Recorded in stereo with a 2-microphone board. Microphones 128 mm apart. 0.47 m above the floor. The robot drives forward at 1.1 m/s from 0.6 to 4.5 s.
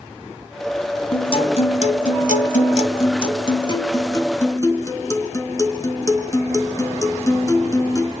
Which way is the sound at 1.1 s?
45° left (ahead or behind).